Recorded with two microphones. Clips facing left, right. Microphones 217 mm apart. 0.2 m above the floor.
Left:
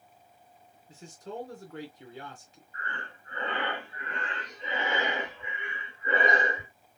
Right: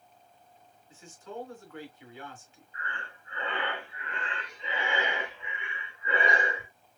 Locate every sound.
0.9 s a man speaking: 40° left (ahead or behind), 2.5 m
2.7 s breathing: 45° left (ahead or behind), 1.9 m